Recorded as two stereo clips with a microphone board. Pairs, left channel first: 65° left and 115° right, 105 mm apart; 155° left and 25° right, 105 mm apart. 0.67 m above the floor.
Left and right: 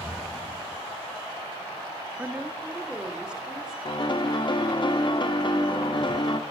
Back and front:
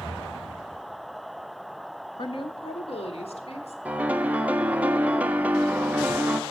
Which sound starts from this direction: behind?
A woman speaking, at 2.2 s.